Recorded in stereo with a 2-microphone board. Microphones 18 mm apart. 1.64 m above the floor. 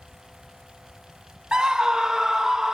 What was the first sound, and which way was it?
A scream, 50° right (ahead or behind).